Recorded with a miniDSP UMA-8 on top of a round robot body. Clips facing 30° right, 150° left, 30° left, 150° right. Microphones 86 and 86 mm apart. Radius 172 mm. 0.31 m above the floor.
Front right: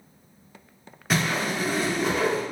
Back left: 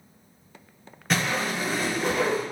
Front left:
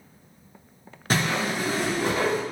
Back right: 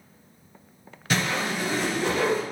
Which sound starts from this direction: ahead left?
A whoosh, at 1.1 s.